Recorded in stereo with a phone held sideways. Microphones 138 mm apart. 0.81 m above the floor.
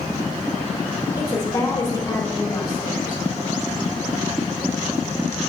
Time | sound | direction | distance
1.2 | a woman speaking | 30° left (ahead or behind) | 3 m